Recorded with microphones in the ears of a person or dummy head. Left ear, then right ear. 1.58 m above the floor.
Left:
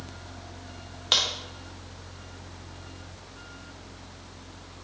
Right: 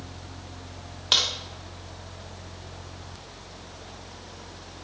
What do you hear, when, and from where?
1.1 s a crack: centre (ahead or behind), 0.6 m